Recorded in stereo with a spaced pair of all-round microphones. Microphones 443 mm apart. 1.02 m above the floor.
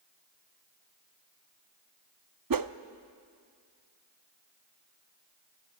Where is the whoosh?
50° right (ahead or behind), 0.6 m.